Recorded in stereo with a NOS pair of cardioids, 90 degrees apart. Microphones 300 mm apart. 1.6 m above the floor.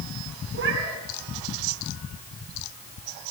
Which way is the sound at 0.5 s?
40° right.